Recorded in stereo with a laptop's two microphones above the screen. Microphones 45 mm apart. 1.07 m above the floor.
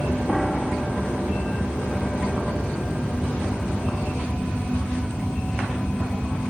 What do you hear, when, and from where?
0.3 s a piano: 5° left (ahead or behind)